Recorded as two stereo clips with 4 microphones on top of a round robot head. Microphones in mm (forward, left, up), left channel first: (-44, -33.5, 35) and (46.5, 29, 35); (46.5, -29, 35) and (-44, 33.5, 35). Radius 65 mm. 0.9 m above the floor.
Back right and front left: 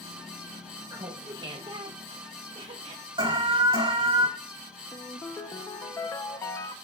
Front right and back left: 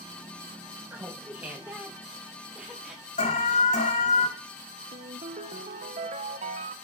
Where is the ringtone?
150° left, 0.8 m.